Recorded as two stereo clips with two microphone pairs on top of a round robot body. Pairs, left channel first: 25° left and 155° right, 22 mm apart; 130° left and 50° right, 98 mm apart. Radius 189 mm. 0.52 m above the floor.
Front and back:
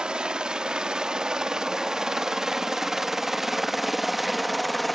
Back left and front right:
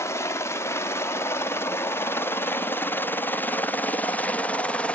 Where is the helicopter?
170° left; by 5.0 s 105° left.